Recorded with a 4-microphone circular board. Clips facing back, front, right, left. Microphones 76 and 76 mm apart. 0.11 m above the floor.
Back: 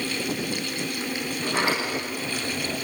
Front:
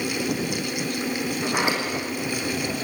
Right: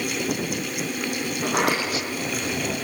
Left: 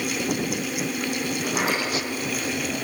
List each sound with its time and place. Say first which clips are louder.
1.4 s a sliding door: even, right 4 dB; 70° right, 6.5 m